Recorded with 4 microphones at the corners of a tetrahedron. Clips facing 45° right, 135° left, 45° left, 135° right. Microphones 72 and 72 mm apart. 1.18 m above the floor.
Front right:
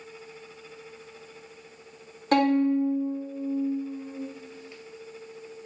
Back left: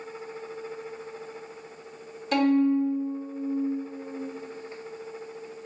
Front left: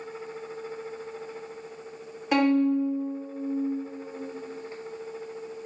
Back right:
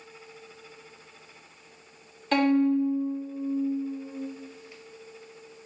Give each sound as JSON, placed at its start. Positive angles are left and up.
{"t": 2.3, "sound": "a violin", "azimuth_deg": -25, "distance_m": 1.0}